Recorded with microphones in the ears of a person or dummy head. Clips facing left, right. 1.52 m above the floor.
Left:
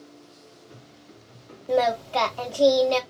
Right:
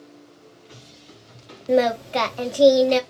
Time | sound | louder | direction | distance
1.7 | singing | right 3 dB | 20° right (ahead or behind) | 0.6 m